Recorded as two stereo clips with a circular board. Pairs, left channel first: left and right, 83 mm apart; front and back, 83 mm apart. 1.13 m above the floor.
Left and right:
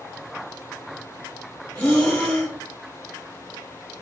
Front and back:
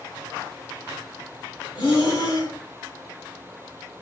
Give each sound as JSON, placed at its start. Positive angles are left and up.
{"t": 1.8, "sound": "breathing", "azimuth_deg": 20, "distance_m": 1.3}